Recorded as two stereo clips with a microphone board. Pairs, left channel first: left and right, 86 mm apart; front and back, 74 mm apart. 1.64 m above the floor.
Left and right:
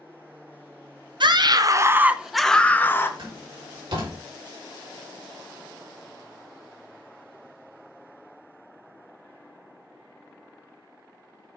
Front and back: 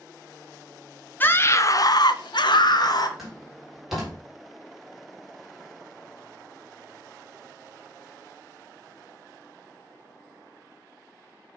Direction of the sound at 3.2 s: 95° right.